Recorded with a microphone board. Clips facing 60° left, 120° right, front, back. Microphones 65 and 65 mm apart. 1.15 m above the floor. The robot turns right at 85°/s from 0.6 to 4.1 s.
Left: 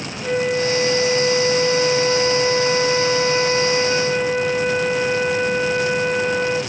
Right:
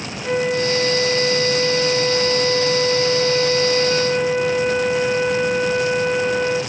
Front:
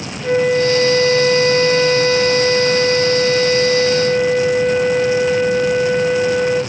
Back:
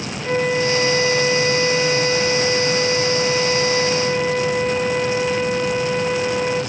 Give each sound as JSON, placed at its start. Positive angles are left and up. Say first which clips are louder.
{"t": 0.2, "sound": "a flute", "louder": "even, front 5 dB", "azimuth_deg": -135, "distance_m": 2.5}